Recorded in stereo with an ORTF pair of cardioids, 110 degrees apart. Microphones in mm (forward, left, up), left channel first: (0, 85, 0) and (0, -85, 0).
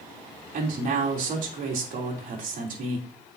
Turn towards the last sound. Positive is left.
turn(degrees=-55)